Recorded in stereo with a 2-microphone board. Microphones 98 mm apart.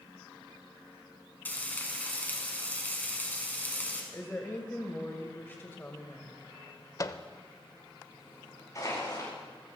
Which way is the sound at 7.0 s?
35° left (ahead or behind).